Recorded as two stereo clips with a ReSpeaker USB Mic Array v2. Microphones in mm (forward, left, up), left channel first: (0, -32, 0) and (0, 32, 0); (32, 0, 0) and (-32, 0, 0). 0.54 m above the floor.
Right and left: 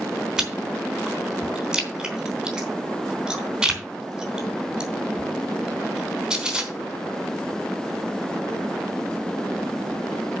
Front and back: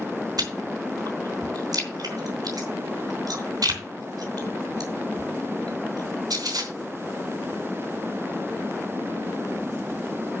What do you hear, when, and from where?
0.4 s chewing: 170° left, 3.5 m